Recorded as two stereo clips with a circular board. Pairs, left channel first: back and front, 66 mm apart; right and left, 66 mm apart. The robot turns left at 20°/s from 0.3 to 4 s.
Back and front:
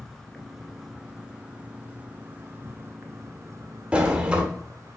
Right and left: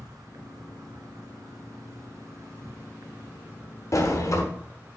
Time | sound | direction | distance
0.0 | an insect | 95° left | 1.1 m
3.9 | a sliding door | 70° right | 1.5 m